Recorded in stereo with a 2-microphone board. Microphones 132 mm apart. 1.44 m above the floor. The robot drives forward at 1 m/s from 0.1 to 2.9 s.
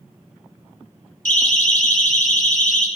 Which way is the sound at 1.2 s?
75° left (ahead or behind).